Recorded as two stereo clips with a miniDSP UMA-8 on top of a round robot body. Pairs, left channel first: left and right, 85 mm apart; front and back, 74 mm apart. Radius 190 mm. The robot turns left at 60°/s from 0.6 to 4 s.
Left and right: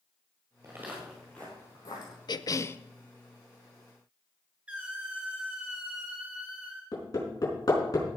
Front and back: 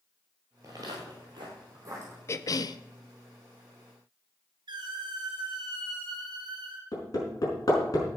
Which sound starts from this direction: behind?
A squeak, at 4.7 s.